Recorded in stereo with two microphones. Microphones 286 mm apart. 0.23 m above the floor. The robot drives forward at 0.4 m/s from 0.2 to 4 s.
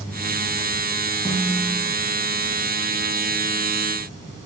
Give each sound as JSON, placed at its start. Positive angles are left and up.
{"t": 1.2, "sound": "a snare drum", "side_deg": -10, "distance_m": 7.5}